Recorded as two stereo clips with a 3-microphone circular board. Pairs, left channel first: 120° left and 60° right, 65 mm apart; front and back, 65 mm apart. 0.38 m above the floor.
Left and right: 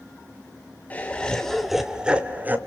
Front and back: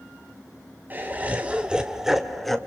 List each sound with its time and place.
0.9 s laughter: 160° left, 1.1 m; by 2.6 s 85° right, 1.1 m